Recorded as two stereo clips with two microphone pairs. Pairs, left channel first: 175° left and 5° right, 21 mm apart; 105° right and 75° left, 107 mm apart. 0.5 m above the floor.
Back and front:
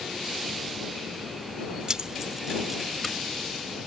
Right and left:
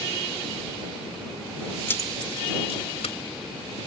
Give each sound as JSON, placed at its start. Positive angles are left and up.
{"t": 1.9, "sound": "keys jangling", "azimuth_deg": -40}